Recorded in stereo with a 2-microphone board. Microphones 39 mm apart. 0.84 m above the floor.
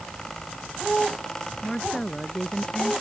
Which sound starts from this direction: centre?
A woman speaking, at 1.6 s.